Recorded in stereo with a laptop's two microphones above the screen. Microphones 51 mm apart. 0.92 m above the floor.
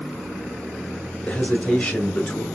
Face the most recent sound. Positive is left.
turn(degrees=50)  # may be behind; listen again after turning